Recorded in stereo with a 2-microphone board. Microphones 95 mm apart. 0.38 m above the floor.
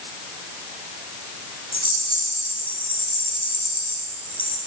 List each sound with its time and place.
1.7 s a rattle: 85° left, 1.7 m